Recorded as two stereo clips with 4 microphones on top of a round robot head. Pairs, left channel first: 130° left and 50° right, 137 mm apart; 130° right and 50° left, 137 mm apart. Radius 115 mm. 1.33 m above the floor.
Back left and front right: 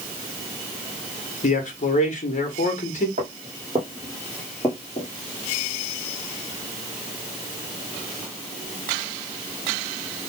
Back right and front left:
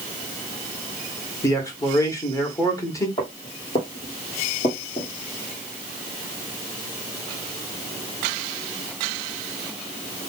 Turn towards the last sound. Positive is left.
turn(degrees=180)